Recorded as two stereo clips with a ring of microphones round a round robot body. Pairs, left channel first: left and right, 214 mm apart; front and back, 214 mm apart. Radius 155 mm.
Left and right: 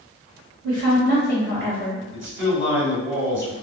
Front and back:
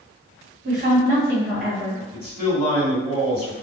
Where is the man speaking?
110° right, 1.9 m.